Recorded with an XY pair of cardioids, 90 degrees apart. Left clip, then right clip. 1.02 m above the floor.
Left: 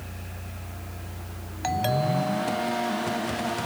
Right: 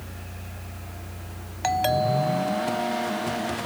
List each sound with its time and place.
1.6 s a doorbell: 30° right